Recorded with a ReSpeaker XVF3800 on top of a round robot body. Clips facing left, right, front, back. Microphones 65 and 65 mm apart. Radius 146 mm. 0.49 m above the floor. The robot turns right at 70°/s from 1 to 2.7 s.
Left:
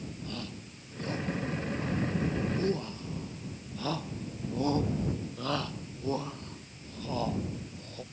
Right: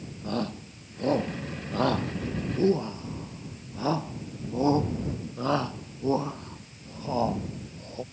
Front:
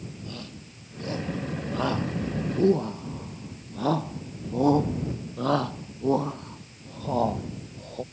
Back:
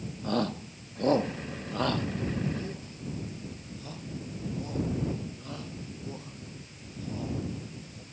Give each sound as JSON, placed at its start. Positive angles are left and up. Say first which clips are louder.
{"t": 0.2, "sound": "a shout", "louder": "right 9 dB, back 11 dB", "azimuth_deg": -145}